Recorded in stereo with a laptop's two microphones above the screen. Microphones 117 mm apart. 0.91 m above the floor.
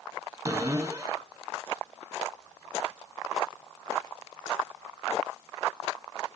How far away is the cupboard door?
About 3 m.